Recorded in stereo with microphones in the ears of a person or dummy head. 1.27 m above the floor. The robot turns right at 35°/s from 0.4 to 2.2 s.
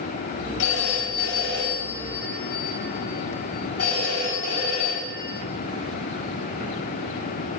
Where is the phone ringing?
80° left, 5 m; by 5.3 s 135° left, 5 m.